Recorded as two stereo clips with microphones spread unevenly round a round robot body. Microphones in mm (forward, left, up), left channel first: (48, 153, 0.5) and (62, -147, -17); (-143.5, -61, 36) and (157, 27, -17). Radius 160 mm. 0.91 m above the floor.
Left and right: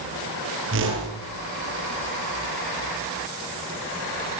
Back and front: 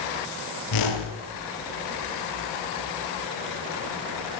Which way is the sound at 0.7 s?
145° right.